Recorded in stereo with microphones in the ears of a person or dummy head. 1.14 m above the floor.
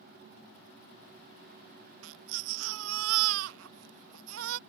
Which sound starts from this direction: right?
A baby crying, at 2.0 s.